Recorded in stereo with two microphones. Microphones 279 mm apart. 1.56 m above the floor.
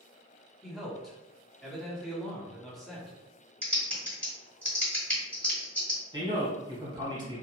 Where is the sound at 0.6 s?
Centre (ahead or behind), 0.9 m.